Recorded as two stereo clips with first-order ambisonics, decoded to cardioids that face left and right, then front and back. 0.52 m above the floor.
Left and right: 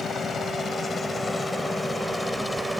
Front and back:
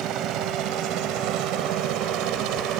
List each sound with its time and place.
0.0 s a helicopter: 155° left; by 2.8 s 175° right